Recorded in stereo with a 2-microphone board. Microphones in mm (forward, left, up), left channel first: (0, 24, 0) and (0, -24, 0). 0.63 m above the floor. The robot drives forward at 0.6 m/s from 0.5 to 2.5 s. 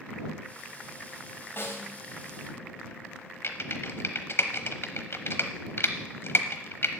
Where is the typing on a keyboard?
60° left (ahead or behind), 1.0 m.